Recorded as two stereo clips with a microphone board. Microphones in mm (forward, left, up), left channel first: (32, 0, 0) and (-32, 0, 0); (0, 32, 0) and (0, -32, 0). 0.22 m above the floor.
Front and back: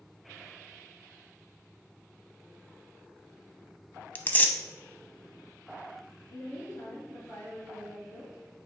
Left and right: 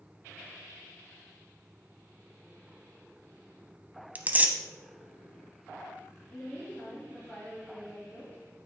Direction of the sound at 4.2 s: 45° right.